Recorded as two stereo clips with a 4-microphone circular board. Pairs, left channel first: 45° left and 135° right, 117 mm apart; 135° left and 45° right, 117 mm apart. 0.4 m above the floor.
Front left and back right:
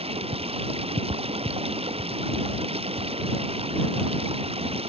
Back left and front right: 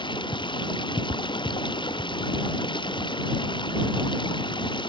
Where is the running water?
175° right.